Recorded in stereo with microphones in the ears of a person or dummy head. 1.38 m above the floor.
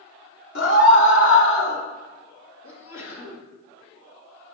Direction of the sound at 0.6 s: 70° left (ahead or behind).